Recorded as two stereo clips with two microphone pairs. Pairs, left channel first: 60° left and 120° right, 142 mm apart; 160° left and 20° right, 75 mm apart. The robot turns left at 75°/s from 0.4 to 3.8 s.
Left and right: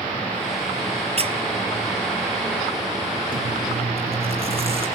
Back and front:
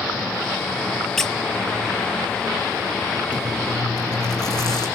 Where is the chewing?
130° right, 7.5 m; by 4.9 s 165° right, 7.5 m.